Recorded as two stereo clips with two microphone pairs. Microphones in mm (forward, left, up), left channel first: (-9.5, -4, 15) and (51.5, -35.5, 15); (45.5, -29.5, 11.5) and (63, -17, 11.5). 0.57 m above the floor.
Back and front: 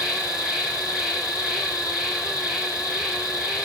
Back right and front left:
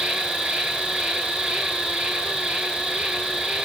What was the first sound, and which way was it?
An insect, 50° left.